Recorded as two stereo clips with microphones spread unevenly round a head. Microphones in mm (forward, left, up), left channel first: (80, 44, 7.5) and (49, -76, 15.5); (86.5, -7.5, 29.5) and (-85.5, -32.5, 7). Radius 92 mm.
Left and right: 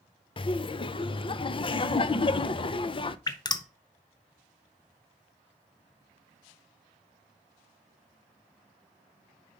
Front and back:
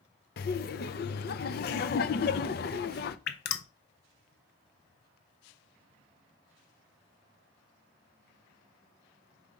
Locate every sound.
0.4 s laughter: 30° left, 0.5 m
3.3 s dripping: 20° left, 0.6 m